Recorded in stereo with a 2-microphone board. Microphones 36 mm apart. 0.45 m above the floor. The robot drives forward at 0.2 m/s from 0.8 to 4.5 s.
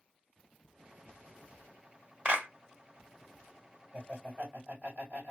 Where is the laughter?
45° right (ahead or behind), 1.7 m; by 5.3 s 40° right (ahead or behind), 1.7 m.